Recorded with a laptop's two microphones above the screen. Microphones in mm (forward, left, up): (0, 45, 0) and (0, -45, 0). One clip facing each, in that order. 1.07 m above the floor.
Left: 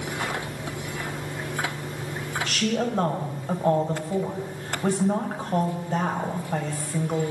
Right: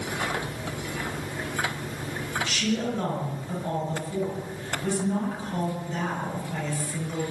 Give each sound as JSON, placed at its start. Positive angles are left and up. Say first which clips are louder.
{"t": 2.5, "sound": "a woman speaking", "louder": "left 3 dB", "side_deg": 60, "distance_m": 6.0}